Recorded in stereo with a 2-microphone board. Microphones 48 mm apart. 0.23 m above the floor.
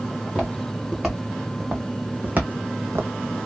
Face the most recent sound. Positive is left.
turn(degrees=-75)  # may be behind; listen again after turning